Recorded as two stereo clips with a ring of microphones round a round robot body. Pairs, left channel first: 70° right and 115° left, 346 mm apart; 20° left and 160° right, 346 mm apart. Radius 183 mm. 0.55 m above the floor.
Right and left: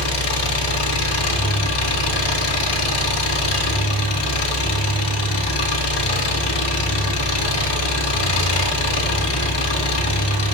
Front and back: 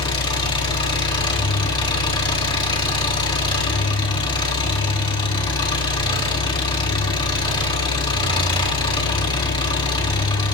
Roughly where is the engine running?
Ahead right.